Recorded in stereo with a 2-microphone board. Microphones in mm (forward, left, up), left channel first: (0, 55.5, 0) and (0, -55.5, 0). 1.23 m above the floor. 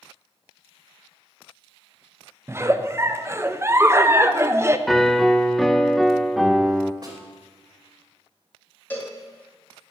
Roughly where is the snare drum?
Right.